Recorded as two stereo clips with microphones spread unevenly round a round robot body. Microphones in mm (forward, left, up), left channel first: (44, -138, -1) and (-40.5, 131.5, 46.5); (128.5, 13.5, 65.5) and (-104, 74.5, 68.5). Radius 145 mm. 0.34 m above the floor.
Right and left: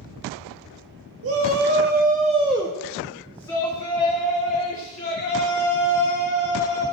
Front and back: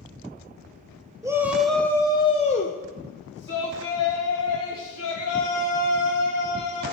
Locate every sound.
1.2 s a shout: 95° left, 1.0 m; by 6.8 s 20° right, 3 m